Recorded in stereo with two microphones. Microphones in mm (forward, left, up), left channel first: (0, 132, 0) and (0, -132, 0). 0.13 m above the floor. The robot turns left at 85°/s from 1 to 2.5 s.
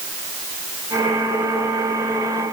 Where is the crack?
I don't hear a crack.